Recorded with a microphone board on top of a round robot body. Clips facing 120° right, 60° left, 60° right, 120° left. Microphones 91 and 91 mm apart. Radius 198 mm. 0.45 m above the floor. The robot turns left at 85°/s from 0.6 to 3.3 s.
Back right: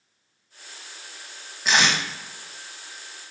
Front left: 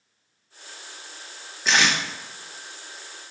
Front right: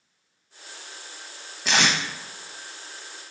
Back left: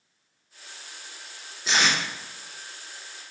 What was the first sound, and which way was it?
Tape being pulled, 35° right.